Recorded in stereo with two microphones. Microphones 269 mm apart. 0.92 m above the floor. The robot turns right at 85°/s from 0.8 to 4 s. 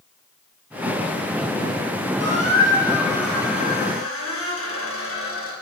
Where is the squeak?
90° right, 2 m; by 5.5 s 60° left, 2 m.